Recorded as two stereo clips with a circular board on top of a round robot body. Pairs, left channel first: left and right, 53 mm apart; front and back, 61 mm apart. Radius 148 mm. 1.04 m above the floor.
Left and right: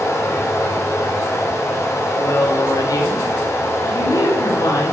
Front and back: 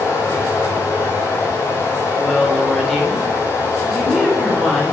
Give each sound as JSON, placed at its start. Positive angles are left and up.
{"t": 0.0, "sound": "running water", "azimuth_deg": 50, "distance_m": 4.5}
{"t": 2.2, "sound": "a woman speaking", "azimuth_deg": 85, "distance_m": 5.0}